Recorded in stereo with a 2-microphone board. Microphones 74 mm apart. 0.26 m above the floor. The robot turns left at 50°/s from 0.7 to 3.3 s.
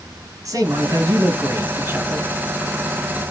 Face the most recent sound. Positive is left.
turn(degrees=155)